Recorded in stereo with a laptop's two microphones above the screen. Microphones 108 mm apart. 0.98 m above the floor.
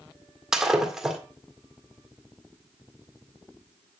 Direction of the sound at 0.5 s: 5° right (ahead or behind).